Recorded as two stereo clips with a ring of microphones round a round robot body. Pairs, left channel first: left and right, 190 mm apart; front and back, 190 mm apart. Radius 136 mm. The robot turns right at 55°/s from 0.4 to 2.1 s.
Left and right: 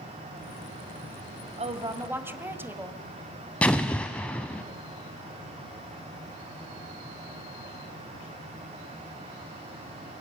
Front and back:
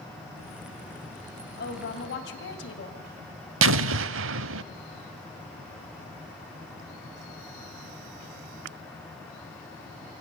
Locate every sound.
1.6 s a woman speaking: 40° right, 2 m; by 3.0 s 10° right, 2 m
3.6 s an explosion: 175° left, 0.5 m